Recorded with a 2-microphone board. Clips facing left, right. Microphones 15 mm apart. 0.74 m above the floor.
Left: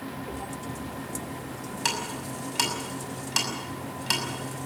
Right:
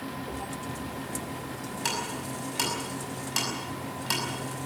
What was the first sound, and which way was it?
Footsteps, 75° left (ahead or behind).